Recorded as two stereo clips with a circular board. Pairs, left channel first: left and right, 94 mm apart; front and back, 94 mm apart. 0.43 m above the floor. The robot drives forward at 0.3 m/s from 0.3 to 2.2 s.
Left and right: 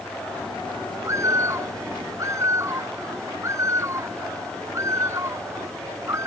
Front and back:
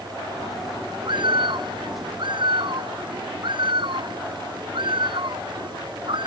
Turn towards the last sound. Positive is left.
turn(degrees=-150)